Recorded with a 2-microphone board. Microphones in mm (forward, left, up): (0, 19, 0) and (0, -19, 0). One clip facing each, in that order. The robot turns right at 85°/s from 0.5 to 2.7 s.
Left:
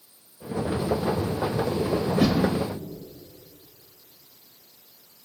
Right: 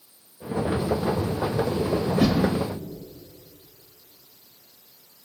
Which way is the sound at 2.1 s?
155° left.